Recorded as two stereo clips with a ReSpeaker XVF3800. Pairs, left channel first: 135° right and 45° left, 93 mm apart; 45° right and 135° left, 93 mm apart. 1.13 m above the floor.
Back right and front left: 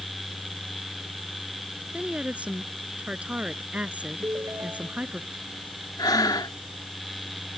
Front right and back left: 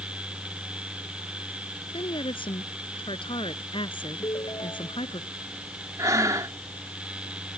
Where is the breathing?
175° right.